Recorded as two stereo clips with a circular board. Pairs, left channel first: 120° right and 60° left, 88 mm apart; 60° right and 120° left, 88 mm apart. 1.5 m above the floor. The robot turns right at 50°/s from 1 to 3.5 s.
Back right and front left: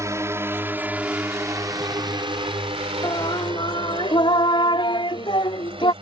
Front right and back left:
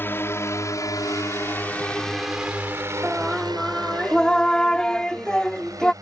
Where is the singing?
165° right; by 5.9 s 140° right.